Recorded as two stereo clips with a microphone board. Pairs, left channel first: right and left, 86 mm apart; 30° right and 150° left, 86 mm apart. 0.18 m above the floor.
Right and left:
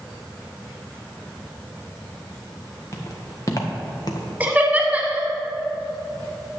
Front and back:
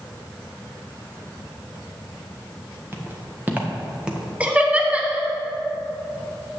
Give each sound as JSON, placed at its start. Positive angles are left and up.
{"t": 2.9, "sound": "footsteps", "azimuth_deg": -145, "distance_m": 1.9}
{"t": 4.4, "sound": "laughter", "azimuth_deg": 110, "distance_m": 1.0}